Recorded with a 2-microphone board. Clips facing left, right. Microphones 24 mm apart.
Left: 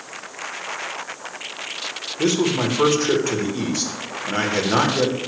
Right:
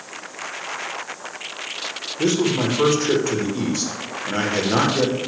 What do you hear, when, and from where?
2.2 s a man speaking: 10° left (ahead or behind), 1.0 m